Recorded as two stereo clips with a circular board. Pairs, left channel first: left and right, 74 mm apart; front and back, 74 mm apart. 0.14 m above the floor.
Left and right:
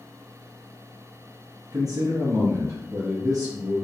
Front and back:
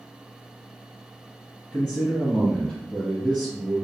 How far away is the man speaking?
About 1.6 m.